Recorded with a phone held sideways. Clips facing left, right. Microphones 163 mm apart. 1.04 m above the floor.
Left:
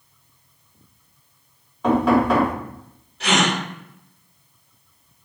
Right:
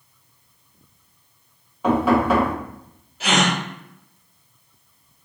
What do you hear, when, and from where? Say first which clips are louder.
1.8 s knocking: left 1 dB; 5° right (ahead or behind), 1.3 m
3.2 s a gasp: even; 5° right (ahead or behind), 1.2 m